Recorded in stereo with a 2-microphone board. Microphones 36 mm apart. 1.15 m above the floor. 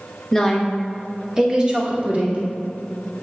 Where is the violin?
No violin in this recording.